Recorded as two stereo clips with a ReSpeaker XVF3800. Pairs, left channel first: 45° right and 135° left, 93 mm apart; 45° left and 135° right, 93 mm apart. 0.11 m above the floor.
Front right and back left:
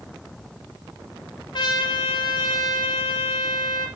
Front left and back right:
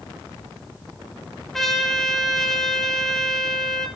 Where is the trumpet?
40° right, 3 m.